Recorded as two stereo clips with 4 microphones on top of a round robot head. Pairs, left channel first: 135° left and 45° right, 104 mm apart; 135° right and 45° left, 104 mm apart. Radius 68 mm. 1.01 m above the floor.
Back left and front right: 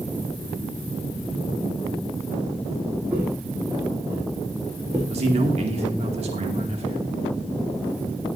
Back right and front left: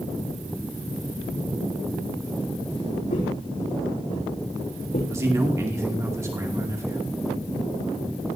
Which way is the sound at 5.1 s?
20° right.